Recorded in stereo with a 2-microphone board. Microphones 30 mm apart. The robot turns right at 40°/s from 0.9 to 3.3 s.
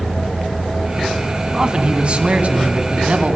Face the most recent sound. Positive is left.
turn(degrees=-75)